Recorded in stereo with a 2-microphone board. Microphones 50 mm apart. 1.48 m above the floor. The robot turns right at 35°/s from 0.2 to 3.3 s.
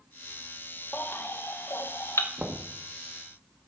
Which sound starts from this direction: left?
A baby crying, at 0.9 s.